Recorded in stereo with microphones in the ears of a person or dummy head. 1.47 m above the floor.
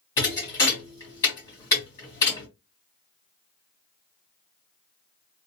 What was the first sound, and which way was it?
A thud, 20° left (ahead or behind).